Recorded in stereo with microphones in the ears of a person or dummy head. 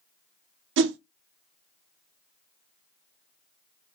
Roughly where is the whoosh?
Right.